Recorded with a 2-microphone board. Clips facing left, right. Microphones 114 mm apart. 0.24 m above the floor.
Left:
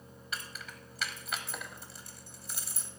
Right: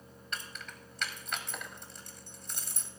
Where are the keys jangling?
5° left (ahead or behind), 0.9 m.